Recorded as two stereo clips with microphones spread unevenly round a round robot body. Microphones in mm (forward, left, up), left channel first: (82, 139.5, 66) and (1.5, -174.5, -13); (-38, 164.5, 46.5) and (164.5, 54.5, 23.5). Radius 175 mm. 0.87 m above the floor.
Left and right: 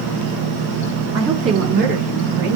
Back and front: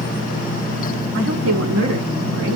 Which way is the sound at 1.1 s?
15° right.